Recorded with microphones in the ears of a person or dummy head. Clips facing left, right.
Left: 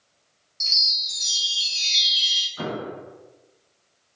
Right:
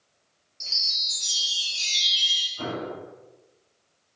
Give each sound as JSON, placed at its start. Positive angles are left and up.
{"t": 0.6, "sound": "a chime", "side_deg": 25, "distance_m": 0.8}
{"t": 2.6, "sound": "an explosion", "side_deg": 65, "distance_m": 0.7}